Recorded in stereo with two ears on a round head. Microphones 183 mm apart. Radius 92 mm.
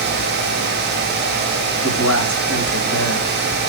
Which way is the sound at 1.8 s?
75° left (ahead or behind).